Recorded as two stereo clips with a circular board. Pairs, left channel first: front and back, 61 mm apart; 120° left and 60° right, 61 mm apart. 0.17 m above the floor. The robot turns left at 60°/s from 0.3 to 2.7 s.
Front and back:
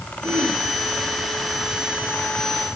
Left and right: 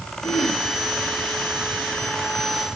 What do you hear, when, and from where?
0.2 s throat clearing: 125° left, 4 m; by 0.6 s 105° left, 4 m